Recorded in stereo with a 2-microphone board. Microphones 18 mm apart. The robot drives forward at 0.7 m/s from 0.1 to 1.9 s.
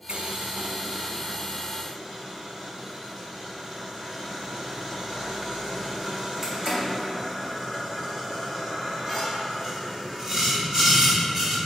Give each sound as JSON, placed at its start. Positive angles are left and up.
{"t": 0.1, "sound": "boiling", "side_deg": -85, "distance_m": 0.5}